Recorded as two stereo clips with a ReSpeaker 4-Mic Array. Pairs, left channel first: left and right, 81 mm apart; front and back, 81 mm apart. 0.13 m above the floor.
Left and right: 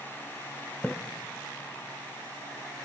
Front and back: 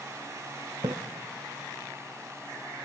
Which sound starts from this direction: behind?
A splash, at 0.8 s.